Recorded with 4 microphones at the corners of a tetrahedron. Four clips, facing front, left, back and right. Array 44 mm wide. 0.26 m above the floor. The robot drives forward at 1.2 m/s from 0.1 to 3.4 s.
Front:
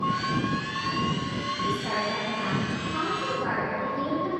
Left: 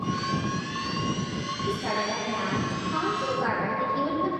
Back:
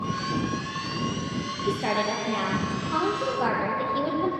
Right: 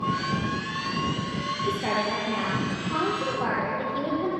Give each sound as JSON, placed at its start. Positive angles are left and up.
{"t": 1.7, "sound": "a woman speaking", "azimuth_deg": -155, "distance_m": 7.5}